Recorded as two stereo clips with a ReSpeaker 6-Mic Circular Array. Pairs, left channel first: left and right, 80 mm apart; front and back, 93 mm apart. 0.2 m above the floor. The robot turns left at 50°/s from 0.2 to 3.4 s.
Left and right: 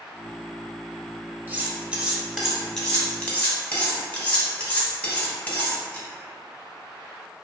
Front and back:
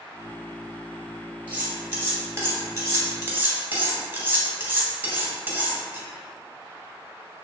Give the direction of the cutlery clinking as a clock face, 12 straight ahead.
4 o'clock.